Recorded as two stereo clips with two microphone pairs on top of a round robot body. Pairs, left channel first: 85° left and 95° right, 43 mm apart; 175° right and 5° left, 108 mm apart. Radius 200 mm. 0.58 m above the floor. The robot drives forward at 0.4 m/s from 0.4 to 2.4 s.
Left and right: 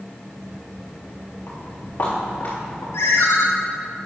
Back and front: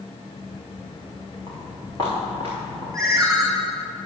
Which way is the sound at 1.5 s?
125° left.